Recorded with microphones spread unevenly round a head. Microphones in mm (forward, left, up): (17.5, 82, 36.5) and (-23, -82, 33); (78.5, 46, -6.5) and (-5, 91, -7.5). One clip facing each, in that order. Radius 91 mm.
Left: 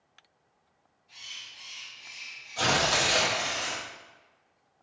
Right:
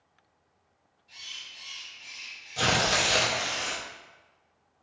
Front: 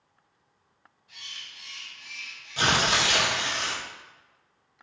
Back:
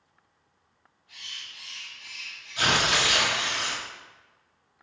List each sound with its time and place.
1.1 s a bird: 85° right, 1.8 m
2.6 s tearing paper: 50° right, 0.7 m